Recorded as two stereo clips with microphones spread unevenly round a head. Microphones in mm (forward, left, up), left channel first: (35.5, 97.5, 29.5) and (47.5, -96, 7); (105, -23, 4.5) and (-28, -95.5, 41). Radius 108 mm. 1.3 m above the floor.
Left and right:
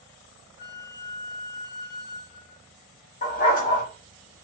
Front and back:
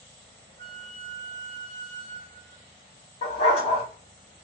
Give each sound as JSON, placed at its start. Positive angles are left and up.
{"t": 0.6, "sound": "a flute", "azimuth_deg": 100, "distance_m": 0.7}
{"t": 3.2, "sound": "a dog barking", "azimuth_deg": 95, "distance_m": 1.0}